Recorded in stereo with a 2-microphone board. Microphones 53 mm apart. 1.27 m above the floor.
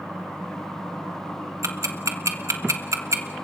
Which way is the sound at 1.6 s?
80° right.